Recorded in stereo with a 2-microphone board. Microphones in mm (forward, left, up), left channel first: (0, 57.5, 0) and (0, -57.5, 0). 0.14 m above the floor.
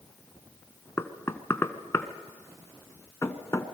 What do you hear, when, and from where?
1.0 s knocking: 25° left (ahead or behind), 1.0 m